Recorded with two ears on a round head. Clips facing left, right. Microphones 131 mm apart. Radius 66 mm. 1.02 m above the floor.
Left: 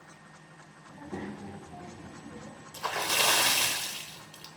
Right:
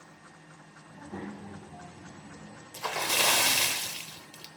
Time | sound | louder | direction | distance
0.9 | a child speaking | left 1 dB | 20° left (ahead or behind) | 1.5 m
2.7 | a splash | even | 10° right (ahead or behind) | 0.8 m